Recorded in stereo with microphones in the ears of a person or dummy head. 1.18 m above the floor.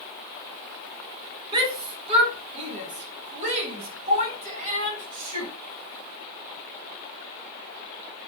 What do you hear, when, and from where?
1.5 s a shout: 30° right (ahead or behind), 3 m; by 5.5 s 45° right (ahead or behind), 8.5 m